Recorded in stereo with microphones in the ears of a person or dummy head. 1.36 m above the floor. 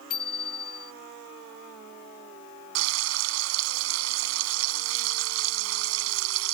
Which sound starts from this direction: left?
A bicycle bell, at 0.1 s.